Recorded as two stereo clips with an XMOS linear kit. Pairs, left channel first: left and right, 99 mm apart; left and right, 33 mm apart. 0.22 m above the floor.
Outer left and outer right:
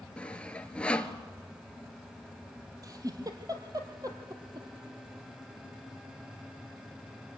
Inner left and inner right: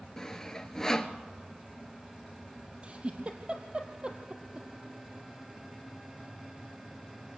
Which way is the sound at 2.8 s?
40° right (ahead or behind).